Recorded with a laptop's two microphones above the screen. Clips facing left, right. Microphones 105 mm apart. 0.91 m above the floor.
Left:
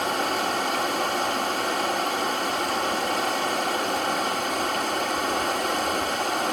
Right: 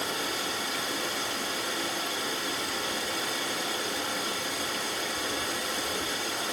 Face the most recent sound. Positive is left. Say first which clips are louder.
# left 8 dB
turn(degrees=55)  # may be behind; listen again after turning